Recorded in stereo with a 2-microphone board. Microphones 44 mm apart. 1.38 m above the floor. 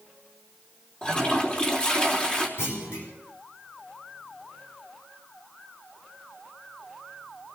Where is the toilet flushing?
25° left (ahead or behind), 3 m.